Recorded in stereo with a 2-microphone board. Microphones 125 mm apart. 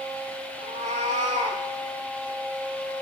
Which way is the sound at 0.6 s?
65° right (ahead or behind).